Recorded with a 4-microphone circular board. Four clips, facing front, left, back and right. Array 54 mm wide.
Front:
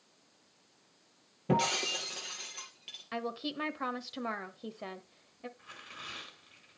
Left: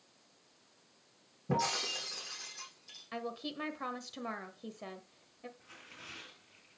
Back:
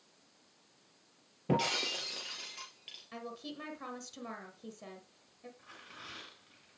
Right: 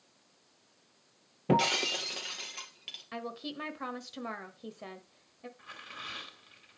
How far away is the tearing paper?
About 3.5 m.